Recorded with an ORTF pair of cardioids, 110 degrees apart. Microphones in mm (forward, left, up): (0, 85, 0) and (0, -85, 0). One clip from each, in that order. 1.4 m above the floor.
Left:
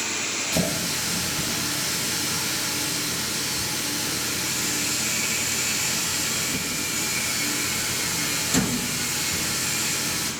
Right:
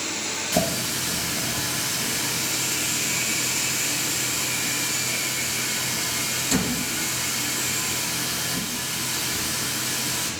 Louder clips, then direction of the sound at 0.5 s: Right 4 dB; 30° right.